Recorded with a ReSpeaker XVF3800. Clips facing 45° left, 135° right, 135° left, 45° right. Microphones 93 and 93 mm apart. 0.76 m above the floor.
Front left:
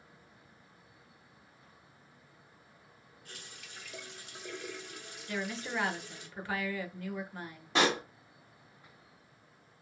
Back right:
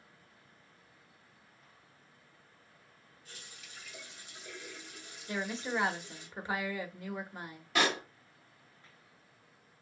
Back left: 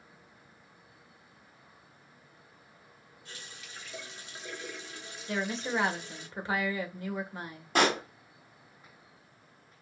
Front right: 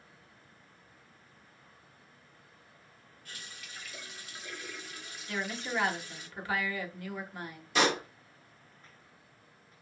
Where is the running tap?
70° left, 1.0 m.